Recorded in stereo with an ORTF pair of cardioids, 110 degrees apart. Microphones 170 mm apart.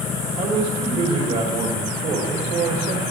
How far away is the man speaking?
About 2 m.